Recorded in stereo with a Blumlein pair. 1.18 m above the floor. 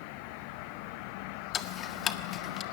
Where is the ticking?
25° left, 1.5 m.